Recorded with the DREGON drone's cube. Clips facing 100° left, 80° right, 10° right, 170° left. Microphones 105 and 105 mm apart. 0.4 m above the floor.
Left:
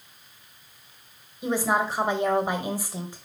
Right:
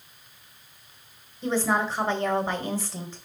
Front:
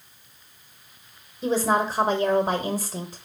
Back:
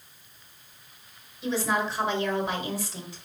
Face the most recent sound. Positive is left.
turn(degrees=25)